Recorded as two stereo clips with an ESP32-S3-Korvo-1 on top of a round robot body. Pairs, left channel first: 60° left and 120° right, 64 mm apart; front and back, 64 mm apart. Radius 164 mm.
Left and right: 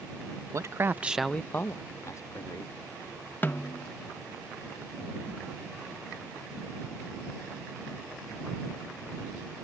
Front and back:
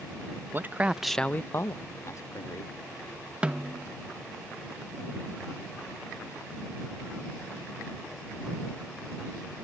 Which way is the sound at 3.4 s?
110° left.